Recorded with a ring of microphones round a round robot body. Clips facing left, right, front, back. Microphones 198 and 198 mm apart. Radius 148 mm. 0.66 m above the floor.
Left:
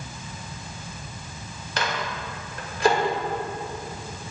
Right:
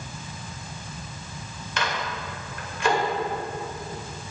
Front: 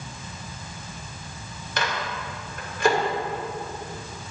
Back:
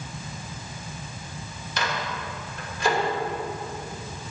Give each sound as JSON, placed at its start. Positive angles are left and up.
{"t": 1.8, "sound": "a microwave", "azimuth_deg": 35, "distance_m": 2.0}